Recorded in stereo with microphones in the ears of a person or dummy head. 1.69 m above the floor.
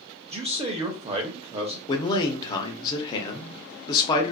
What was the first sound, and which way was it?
A man speaking, 30° right (ahead or behind).